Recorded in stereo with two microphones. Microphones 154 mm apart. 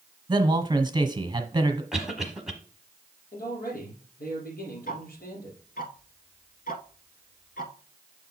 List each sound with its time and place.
0.3 s a man speaking: 30° right (ahead or behind), 1.2 m
1.9 s a cough: 5° right (ahead or behind), 1.0 m
3.3 s a man speaking: 75° left (ahead or behind), 5 m
4.9 s ticking: 65° left (ahead or behind), 0.9 m